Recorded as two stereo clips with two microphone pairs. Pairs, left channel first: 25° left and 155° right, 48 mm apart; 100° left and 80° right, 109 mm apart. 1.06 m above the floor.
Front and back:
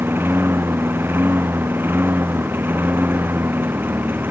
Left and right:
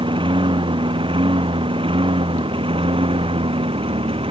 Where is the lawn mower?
115° right; by 4.3 s 110° right.